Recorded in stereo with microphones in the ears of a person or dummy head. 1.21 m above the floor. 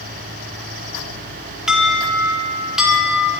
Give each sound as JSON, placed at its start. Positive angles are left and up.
{"t": 1.7, "sound": "an alarm", "side_deg": -5, "distance_m": 2.0}